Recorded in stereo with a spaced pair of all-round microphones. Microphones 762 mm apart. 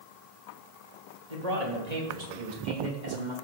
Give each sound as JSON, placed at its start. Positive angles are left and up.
{"t": 1.3, "sound": "a man speaking", "side_deg": -50, "distance_m": 3.0}